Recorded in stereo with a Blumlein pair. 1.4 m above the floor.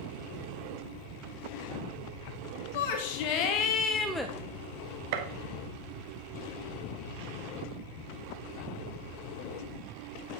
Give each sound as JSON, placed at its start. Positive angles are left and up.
{"t": 2.7, "sound": "a shout", "azimuth_deg": 50, "distance_m": 1.8}
{"t": 5.1, "sound": "a gunshot", "azimuth_deg": -50, "distance_m": 1.2}